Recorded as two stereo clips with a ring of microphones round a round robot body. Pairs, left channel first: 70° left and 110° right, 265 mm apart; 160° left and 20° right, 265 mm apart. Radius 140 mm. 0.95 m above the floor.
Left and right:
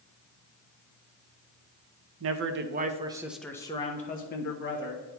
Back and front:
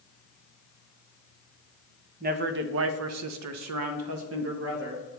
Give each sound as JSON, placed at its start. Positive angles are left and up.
{"t": 2.2, "sound": "a man speaking", "azimuth_deg": -80, "distance_m": 0.8}